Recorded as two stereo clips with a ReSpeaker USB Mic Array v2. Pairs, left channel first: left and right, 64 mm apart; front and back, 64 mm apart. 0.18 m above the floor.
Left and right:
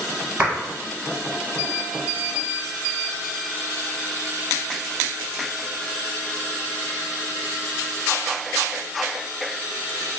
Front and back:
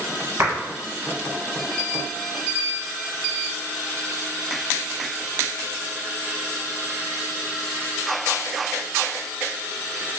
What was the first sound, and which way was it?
A clap, 145° right.